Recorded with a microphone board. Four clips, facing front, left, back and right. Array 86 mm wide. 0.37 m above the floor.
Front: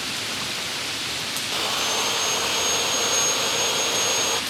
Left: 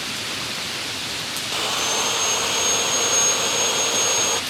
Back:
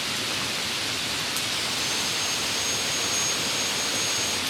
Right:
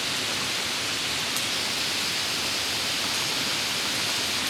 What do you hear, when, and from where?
1.5 s sawing: 55° left